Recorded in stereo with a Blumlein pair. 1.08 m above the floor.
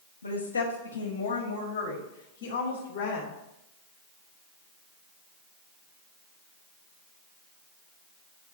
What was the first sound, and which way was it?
A woman speaking, 65° left.